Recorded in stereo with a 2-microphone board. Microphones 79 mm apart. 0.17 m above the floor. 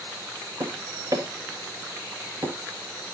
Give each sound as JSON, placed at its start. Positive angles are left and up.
{"t": 0.6, "sound": "tapping", "side_deg": -45, "distance_m": 2.0}